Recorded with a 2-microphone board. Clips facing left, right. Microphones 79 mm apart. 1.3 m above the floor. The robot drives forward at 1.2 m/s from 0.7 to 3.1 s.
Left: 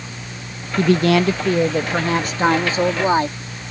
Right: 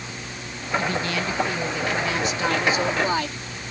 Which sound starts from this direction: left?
A woman speaking, at 0.8 s.